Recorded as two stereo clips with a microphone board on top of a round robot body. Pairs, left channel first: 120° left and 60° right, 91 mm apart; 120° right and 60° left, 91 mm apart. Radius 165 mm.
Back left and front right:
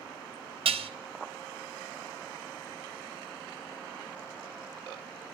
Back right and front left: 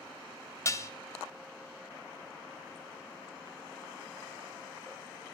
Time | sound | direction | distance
0.7 | dishes clattering | 60° right | 0.9 m